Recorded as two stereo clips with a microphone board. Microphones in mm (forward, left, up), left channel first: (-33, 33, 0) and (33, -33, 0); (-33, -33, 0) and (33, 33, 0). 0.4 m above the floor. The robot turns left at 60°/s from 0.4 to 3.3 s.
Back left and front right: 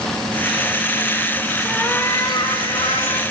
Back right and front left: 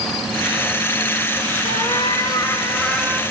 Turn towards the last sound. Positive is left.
turn(degrees=120)